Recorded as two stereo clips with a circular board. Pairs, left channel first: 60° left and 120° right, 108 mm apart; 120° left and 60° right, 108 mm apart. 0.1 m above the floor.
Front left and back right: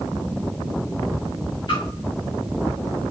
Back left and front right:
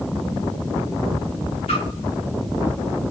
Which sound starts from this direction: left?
A splash, at 1.7 s.